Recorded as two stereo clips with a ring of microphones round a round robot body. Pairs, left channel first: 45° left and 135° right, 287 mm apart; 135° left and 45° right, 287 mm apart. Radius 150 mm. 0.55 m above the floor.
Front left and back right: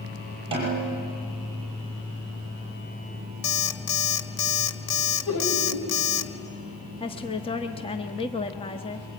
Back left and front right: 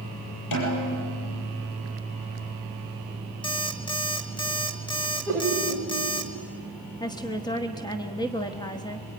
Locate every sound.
0.5 s a snare drum: 150° left, 8 m
3.4 s an alarm clock: 60° left, 1.5 m
5.3 s laughter: 55° left, 3.5 m
7.0 s a woman speaking: 85° left, 1.2 m